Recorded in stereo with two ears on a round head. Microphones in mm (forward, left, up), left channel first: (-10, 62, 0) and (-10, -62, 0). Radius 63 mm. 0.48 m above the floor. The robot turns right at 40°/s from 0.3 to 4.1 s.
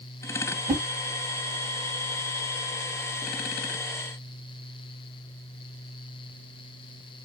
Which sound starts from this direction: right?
A whoosh, at 0.7 s.